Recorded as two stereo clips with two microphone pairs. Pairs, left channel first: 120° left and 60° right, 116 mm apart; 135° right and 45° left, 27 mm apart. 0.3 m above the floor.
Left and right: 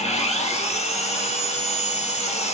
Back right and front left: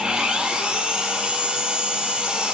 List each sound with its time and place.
0.0 s an engine running: 100° left, 5.5 m